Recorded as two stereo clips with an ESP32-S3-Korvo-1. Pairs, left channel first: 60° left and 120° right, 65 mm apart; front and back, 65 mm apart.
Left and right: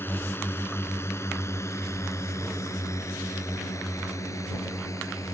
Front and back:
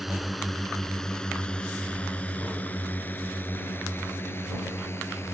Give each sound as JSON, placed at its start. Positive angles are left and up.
{"t": 0.0, "sound": "a drone", "azimuth_deg": 95}